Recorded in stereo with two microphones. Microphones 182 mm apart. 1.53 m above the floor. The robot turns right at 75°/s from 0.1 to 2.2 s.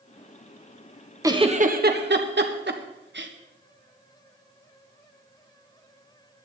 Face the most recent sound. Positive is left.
turn(degrees=-70)  # may be behind; listen again after turning